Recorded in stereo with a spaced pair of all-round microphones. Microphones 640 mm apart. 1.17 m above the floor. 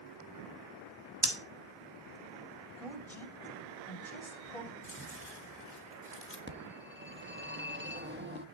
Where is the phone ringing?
15° right (ahead or behind), 1.3 m.